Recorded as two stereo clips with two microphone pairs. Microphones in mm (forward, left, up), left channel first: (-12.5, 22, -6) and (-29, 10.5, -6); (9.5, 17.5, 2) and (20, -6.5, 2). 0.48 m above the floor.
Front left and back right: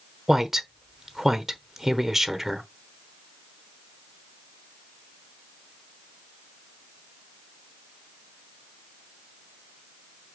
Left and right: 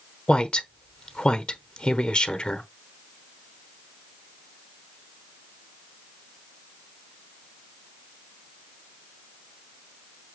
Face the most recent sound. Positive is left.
turn(degrees=145)